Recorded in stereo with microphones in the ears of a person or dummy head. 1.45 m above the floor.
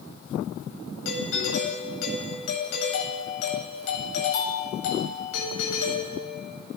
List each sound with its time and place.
1.1 s a doorbell: 80° left, 9.5 m